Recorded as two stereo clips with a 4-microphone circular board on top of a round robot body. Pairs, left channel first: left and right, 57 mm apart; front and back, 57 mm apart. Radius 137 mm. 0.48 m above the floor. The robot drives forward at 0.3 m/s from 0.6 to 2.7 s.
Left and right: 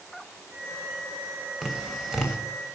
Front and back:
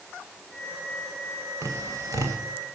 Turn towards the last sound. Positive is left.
turn(degrees=-175)